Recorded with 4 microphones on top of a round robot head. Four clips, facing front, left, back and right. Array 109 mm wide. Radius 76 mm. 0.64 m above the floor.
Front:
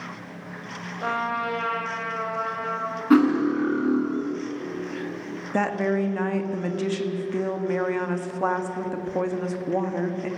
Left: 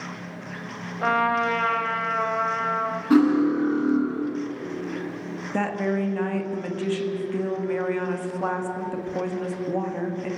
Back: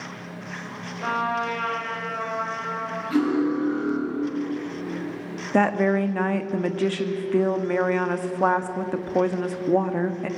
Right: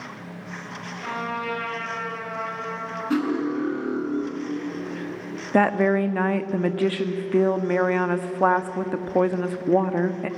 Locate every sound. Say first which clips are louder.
1.0 s a trumpet: left 8 dB, back 1 dB; 80° left, 2.5 m
3.1 s cutlery clinking: left 6 dB, front 4 dB; 20° left, 5 m
5.5 s a woman speaking: right 6 dB, back 4 dB; 120° right, 1.5 m